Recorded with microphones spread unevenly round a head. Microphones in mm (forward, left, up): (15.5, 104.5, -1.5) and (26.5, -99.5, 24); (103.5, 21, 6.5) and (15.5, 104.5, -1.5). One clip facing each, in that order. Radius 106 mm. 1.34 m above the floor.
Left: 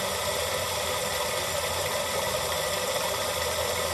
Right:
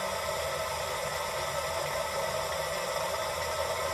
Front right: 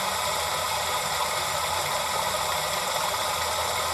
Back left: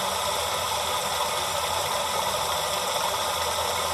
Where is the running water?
50° left, 0.7 m.